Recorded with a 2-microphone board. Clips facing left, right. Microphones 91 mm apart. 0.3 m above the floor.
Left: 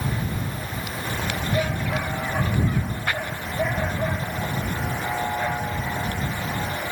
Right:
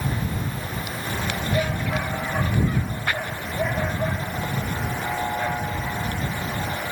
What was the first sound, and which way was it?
Only background noise.